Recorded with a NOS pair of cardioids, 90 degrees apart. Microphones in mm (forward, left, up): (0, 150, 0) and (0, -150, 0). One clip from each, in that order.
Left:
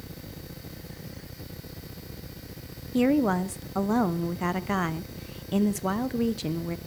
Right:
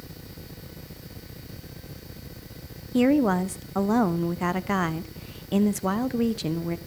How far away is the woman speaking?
About 1.0 m.